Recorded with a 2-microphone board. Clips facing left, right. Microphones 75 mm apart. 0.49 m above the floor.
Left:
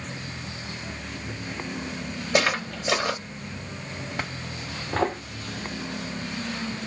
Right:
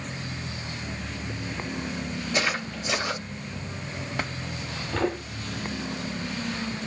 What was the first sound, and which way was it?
Footsteps, 75° left (ahead or behind).